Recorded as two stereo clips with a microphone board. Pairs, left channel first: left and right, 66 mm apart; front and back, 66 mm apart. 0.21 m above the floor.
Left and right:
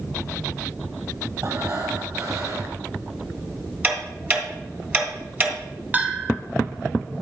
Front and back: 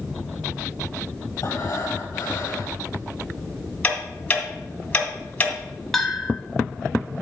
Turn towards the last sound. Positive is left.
turn(degrees=-80)